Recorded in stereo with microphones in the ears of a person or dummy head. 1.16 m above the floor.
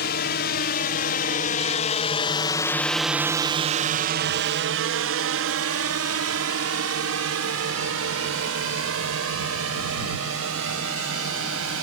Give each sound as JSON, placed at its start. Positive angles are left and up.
{"t": 0.0, "sound": "a drone", "side_deg": 60}